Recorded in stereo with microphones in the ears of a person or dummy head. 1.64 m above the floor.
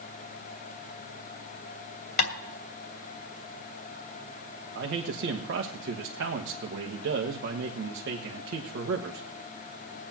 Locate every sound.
2.2 s tapping: 55° left (ahead or behind), 2.5 m
4.8 s a man speaking: 60° right (ahead or behind), 1.1 m